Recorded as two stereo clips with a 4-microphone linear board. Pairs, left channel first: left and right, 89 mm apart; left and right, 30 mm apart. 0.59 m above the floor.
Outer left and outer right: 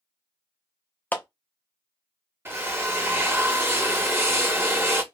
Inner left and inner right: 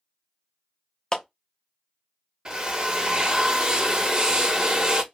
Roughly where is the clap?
Left.